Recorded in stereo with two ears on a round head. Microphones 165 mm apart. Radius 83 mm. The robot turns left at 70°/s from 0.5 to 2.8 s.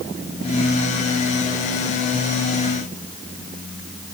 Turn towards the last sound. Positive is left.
No sound to turn to.